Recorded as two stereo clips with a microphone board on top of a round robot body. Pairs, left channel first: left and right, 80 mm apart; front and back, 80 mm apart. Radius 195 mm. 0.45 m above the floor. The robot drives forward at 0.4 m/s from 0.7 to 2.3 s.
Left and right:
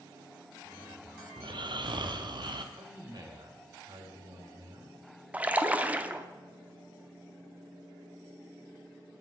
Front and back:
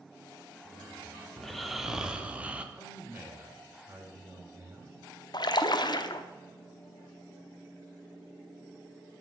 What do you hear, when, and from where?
1.4 s snoring: 85° right, 1.1 m; by 2.6 s 105° right, 1.1 m
2.8 s a man speaking: 115° right, 3 m
5.3 s a splash: 20° right, 0.9 m